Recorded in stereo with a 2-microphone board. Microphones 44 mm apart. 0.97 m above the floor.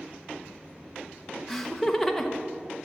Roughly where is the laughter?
Centre.